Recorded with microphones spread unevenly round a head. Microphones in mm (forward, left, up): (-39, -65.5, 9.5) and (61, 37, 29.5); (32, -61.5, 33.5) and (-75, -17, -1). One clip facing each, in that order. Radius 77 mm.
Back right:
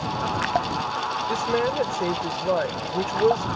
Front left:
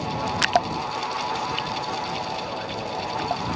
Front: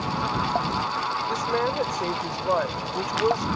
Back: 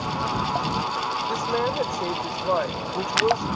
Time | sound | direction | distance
1.3 | a woman speaking | 110° right | ?